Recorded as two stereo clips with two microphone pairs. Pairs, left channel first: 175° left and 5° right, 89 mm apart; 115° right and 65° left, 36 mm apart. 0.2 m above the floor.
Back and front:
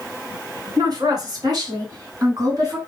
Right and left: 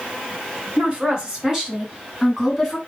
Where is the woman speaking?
20° left, 2.5 m; by 2.8 s 25° right, 2.5 m.